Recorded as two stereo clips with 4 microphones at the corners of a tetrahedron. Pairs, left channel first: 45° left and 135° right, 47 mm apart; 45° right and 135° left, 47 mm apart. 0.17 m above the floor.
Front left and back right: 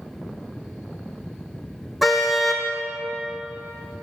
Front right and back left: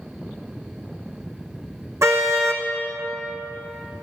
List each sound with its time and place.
2.0 s a car horn: 140° left, 3.5 m